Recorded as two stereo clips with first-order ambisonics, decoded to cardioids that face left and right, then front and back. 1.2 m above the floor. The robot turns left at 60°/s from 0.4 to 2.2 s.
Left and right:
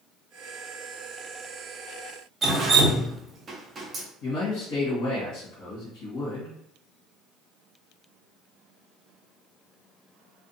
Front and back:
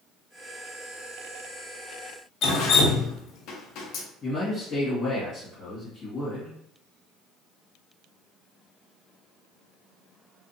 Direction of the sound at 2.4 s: 20° right.